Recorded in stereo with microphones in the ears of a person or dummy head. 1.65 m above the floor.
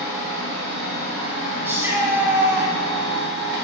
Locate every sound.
0.0 s a machine running: 55° right (ahead or behind), 1.0 m
1.6 s a shout: 10° right (ahead or behind), 0.7 m